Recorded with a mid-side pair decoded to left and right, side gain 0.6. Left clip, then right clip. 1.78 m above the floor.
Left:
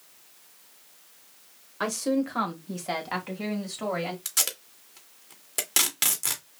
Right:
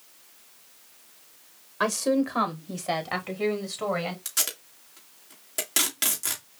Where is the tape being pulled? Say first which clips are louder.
Left 1 dB; 15° left, 2.0 m.